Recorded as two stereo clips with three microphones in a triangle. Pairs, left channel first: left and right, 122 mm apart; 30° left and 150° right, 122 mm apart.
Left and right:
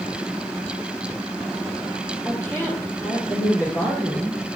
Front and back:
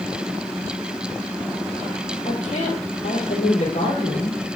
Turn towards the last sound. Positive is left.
turn(degrees=40)